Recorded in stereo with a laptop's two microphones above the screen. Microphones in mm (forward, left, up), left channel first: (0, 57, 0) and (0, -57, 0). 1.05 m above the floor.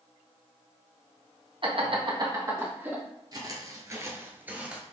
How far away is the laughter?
About 0.9 m.